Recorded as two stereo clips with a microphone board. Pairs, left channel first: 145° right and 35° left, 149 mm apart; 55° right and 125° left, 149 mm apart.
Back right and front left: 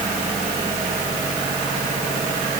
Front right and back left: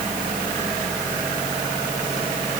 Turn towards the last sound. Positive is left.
No sound to turn to.